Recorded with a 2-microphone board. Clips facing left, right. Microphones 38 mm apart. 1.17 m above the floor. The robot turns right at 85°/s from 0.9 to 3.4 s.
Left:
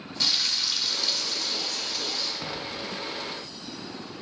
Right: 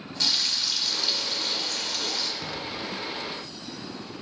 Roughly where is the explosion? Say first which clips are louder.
Right 1 dB; behind left.